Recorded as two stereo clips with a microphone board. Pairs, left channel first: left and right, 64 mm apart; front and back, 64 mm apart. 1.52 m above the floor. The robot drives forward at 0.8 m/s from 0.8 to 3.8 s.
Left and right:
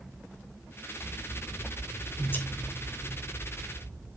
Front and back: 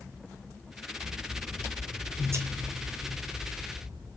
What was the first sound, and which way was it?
Scissors, 115° left.